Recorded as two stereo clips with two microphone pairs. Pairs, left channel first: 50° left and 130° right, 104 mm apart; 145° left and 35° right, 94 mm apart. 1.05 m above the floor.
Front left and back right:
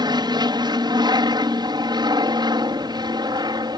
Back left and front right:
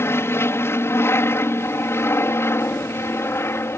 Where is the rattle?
No rattle in this recording.